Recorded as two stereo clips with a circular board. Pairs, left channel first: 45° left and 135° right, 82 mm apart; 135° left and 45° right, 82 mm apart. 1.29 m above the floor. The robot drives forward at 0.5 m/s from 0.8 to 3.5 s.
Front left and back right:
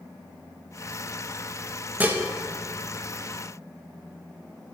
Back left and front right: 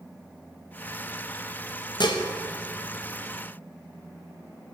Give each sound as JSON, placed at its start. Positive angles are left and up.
{"t": 2.0, "sound": "dishes clattering", "azimuth_deg": 155, "distance_m": 0.8}